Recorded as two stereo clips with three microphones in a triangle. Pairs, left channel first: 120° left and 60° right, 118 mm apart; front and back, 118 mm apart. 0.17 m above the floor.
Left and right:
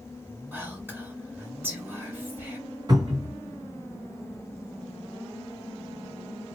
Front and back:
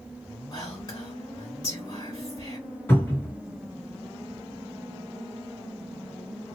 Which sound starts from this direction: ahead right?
A cupboard door, at 2.9 s.